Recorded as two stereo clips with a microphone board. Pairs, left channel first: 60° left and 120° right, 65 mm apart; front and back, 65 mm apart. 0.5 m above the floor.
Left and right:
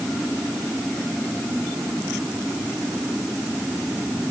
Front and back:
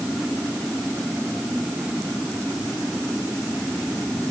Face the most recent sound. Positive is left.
No sound to turn to.